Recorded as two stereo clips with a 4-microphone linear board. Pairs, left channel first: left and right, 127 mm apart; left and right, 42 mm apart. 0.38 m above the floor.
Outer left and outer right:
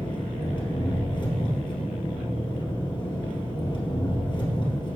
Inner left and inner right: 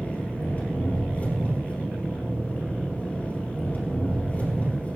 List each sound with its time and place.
0.0 s an engine running: 35° left (ahead or behind), 2.5 m